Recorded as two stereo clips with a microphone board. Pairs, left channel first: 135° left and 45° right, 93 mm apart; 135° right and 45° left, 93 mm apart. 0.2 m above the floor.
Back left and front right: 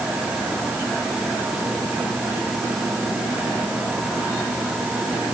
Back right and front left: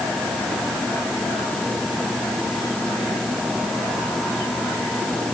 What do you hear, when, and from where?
Only background noise.